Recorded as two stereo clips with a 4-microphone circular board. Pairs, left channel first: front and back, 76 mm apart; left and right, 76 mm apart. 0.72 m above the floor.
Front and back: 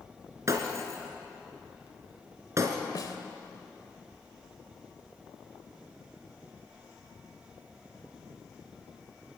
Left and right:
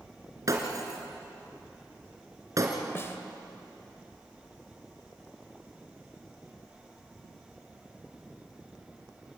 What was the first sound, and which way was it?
Breaking glass, 130° right.